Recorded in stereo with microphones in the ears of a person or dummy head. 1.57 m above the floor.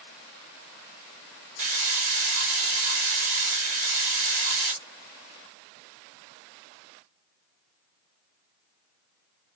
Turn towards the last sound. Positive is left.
turn(degrees=-40)  # may be behind; listen again after turning